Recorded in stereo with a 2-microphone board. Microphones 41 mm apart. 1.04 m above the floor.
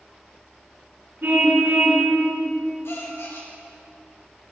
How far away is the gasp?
About 2.5 m.